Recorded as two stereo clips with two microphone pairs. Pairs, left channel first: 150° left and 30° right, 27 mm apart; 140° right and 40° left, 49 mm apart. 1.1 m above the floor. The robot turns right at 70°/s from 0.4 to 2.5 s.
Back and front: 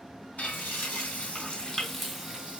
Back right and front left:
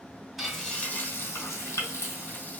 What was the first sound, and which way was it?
Frying, 125° left.